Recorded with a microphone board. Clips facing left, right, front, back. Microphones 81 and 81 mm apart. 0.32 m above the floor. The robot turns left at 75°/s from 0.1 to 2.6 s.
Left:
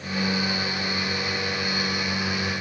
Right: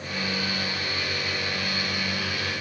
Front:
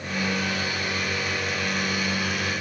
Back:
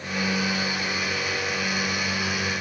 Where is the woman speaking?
No woman speaking in this recording.